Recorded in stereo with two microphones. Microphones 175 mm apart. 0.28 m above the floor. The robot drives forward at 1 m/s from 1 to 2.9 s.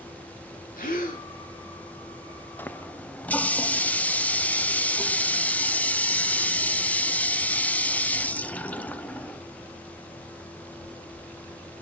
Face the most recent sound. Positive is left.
turn(degrees=10)  # may be behind; listen again after turning